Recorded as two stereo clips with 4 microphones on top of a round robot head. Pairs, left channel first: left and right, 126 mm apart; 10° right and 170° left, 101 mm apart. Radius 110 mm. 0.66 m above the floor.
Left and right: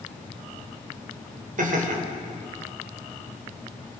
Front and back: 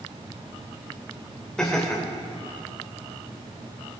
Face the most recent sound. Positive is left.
turn(degrees=-95)